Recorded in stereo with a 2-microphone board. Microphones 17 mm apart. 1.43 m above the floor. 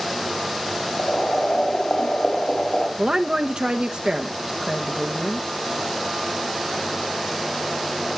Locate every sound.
1.0 s boiling: 45° left (ahead or behind), 7 m
3.0 s a woman speaking: 50° right (ahead or behind), 1.1 m